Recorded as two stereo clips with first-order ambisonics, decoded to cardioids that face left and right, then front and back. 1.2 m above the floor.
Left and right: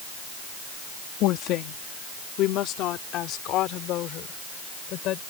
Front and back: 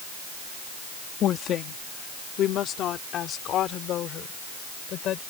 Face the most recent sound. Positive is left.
turn(degrees=50)